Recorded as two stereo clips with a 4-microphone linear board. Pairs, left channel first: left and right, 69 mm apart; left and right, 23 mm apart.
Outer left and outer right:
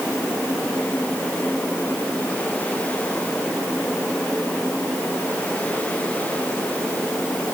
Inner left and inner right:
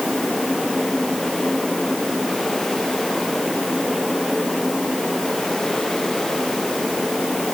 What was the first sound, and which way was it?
Only background noise.